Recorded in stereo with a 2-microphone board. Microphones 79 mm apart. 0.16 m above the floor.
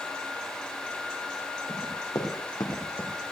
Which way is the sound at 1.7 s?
50° left (ahead or behind).